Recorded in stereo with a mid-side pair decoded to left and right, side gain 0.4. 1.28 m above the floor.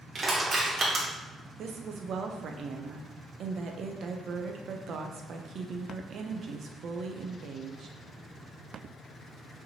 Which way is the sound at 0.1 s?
45° right.